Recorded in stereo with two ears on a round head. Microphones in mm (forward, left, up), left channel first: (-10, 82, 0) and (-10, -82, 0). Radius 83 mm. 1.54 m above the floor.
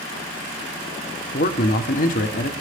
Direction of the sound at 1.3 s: 45° left (ahead or behind).